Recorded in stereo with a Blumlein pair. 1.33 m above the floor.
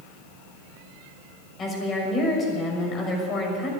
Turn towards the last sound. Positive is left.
turn(degrees=25)